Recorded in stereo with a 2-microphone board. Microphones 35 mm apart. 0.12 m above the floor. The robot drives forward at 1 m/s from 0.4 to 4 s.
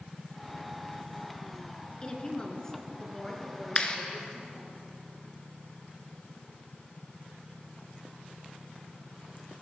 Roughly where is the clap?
Left.